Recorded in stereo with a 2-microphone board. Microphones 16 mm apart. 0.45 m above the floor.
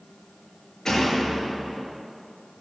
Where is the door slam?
40° left (ahead or behind), 5 m.